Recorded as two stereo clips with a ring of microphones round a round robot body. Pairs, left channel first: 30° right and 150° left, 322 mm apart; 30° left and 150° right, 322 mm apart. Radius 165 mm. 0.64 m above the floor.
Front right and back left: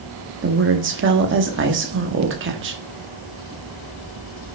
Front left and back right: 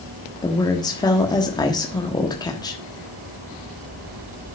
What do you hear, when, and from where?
0.4 s a woman speaking: 105° left, 1.2 m